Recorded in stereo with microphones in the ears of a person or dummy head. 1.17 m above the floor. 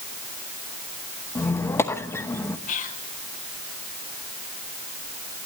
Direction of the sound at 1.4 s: 15° left (ahead or behind).